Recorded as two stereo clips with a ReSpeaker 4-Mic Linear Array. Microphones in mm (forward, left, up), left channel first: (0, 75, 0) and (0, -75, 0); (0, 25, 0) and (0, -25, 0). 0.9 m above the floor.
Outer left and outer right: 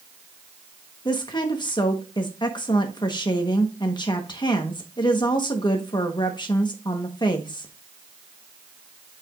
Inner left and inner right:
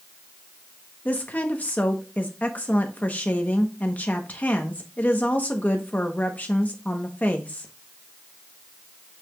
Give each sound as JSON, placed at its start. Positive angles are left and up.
{"t": 1.1, "sound": "a woman speaking", "side_deg": 30, "distance_m": 1.1}